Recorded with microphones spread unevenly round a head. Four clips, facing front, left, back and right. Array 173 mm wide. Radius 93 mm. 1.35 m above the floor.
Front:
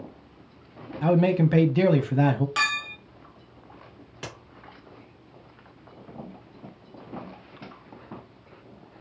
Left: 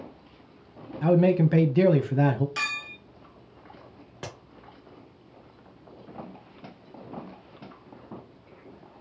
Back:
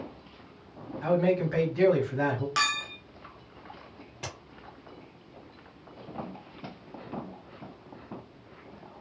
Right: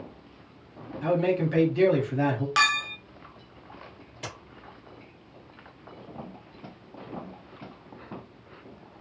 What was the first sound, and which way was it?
A man speaking, 45° left.